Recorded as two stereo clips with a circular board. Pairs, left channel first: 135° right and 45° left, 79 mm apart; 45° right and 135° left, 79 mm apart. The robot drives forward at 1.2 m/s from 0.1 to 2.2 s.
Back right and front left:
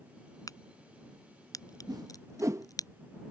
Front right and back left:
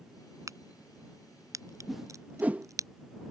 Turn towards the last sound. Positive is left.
turn(degrees=70)